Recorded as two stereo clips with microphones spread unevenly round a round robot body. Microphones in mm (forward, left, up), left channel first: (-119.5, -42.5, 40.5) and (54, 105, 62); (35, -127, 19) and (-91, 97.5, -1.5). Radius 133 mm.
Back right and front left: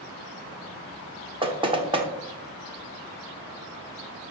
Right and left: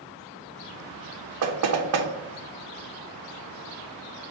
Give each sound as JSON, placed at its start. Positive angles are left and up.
{"t": 1.4, "sound": "knocking", "azimuth_deg": 110, "distance_m": 1.0}